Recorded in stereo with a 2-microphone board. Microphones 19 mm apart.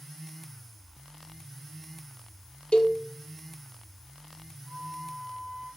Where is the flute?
45° left (ahead or behind), 7 m.